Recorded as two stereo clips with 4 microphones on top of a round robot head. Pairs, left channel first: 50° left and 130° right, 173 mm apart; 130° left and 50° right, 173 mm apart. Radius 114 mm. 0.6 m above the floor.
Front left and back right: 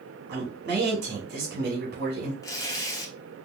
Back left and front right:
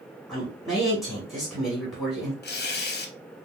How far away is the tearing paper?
About 0.9 m.